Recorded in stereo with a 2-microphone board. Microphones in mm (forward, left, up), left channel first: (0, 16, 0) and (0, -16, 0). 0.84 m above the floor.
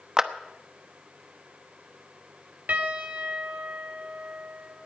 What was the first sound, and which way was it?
A clap, 20° right (ahead or behind).